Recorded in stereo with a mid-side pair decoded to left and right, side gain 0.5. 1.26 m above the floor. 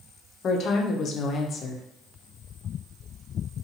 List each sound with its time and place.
0.4 s a woman speaking: 55° left, 0.7 m